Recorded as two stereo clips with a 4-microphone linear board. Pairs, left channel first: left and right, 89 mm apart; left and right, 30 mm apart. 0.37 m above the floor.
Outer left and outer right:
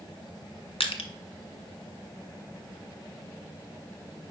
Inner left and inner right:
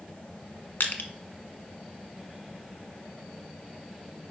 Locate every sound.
0.8 s crushing: 85° left, 1.1 m